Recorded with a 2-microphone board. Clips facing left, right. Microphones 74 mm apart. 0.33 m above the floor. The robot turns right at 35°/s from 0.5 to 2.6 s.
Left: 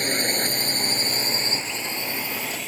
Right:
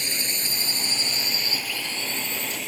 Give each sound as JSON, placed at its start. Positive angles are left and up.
{"t": 0.0, "sound": "a drone", "side_deg": 45}